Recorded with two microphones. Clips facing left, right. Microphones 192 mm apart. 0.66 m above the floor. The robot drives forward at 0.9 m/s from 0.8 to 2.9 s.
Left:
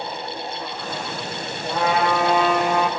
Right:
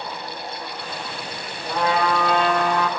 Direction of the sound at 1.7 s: 5° left (ahead or behind).